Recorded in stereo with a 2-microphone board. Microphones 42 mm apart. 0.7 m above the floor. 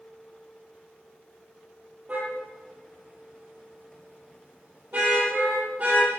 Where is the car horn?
40° right (ahead or behind), 9.5 m.